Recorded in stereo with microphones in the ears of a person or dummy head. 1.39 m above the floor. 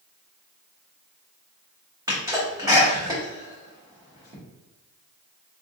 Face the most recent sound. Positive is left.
turn(degrees=-15)  # may be behind; listen again after turning